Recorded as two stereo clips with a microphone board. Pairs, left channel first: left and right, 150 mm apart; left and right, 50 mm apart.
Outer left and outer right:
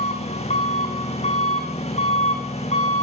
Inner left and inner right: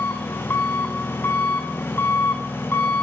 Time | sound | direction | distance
0.0 | an engine running | 45° left (ahead or behind) | 3 m